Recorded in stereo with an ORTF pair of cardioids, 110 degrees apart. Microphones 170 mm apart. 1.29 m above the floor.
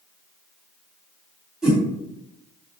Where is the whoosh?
Straight ahead, 2.0 m.